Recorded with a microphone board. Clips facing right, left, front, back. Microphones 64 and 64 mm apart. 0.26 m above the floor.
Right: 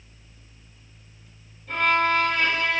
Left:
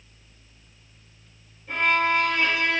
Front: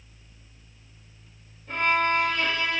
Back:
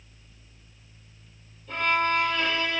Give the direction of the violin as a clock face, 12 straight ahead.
12 o'clock.